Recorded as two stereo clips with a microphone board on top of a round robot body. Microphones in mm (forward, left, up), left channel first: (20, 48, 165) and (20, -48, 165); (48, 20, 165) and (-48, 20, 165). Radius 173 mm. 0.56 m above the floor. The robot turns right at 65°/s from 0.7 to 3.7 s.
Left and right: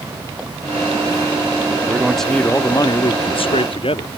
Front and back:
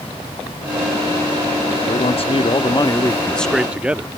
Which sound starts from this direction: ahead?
A man speaking, at 1.9 s.